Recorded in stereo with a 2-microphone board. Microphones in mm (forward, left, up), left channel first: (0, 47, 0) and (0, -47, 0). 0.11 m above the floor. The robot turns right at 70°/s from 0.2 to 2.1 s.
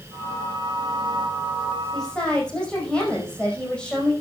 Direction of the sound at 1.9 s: Centre (ahead or behind).